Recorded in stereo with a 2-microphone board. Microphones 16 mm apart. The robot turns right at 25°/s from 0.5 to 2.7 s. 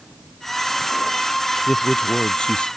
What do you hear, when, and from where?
1.7 s a man speaking: 60° left (ahead or behind); by 2.7 s 80° left